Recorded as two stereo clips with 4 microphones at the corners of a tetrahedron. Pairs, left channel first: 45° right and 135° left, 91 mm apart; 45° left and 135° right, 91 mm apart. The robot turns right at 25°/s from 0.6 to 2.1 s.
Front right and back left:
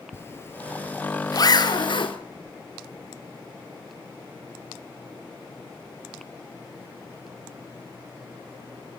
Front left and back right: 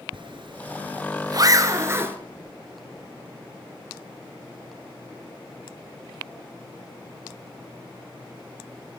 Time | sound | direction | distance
0.1 | a zipper | 105° right | 1.7 m